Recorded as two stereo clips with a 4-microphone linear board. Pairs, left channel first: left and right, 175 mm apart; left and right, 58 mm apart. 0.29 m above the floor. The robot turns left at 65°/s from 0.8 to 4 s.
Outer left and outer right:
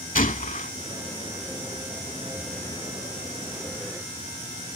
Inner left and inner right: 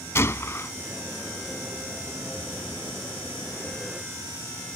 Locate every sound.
0.1 s a gunshot: 50° left (ahead or behind)